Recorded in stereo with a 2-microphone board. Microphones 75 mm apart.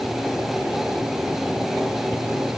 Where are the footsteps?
I don't hear footsteps.